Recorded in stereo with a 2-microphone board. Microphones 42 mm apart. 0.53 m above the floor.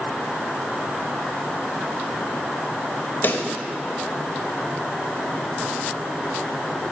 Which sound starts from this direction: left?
A pop, at 3.2 s.